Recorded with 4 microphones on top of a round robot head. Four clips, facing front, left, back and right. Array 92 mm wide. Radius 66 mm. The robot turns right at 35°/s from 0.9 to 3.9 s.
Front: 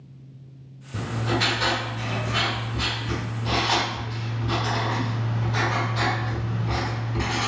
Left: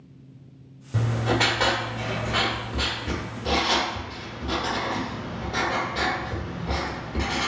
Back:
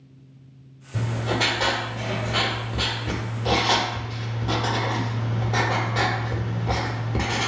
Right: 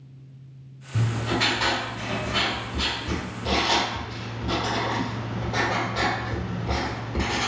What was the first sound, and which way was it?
Writing, 80° left.